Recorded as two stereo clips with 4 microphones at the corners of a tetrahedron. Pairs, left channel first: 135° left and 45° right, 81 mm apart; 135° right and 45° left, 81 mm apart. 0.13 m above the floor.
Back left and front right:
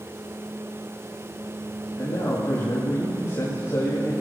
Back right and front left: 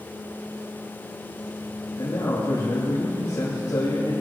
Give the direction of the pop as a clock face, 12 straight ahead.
No pop in this recording.